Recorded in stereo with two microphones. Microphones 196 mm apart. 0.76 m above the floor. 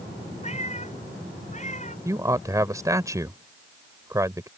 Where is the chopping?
I don't hear chopping.